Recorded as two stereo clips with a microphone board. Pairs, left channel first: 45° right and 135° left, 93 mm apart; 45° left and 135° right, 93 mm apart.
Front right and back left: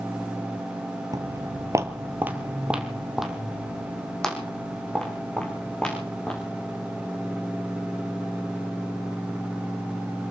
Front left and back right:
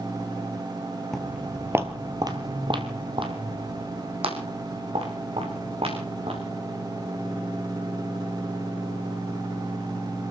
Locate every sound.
1.1 s footsteps: 130° left, 1.5 m; by 6.4 s 125° right, 6 m